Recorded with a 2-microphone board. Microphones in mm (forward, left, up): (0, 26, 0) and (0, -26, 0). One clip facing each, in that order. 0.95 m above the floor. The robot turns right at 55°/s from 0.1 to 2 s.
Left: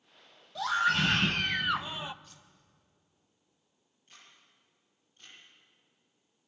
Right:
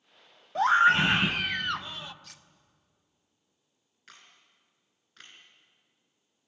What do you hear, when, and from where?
0.6 s a scream: 55° right, 1.0 m; by 2.1 s 25° left, 1.0 m
2.2 s cutlery clinking: 70° right (ahead or behind), 1.0 m
4.1 s a camera shutter: 90° right, 7 m